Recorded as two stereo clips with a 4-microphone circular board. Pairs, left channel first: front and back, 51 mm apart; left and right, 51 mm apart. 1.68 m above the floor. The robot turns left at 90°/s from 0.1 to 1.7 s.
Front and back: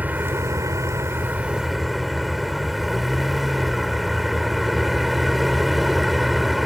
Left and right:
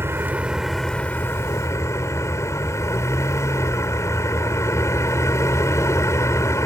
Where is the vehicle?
125° right; by 6.7 s 90° left.